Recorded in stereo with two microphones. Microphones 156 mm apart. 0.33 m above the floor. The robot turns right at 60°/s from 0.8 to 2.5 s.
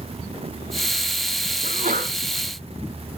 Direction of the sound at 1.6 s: 65° right (ahead or behind).